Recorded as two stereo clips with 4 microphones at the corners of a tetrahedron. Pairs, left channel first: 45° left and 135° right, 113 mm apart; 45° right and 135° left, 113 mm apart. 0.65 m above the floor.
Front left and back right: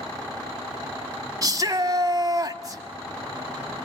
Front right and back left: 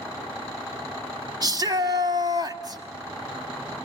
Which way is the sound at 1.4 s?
175° left.